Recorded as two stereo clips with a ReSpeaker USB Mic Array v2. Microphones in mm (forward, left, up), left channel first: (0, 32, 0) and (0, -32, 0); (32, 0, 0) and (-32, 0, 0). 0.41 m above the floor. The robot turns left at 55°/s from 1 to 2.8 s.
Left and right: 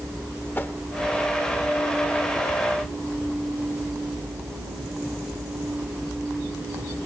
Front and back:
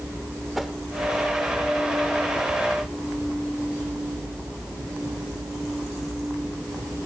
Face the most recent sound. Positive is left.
turn(degrees=-5)